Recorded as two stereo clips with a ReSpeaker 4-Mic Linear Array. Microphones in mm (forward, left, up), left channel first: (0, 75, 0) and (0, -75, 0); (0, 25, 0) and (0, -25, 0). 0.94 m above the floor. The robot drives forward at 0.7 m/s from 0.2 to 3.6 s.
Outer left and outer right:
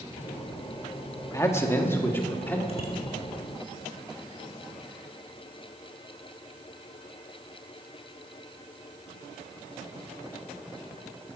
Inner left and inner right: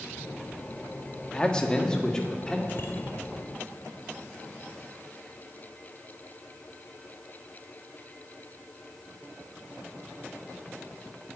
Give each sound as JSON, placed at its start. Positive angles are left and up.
{"t": 1.3, "sound": "a man speaking", "side_deg": 20, "distance_m": 1.6}
{"t": 2.7, "sound": "a bicycle bell", "side_deg": 40, "distance_m": 2.0}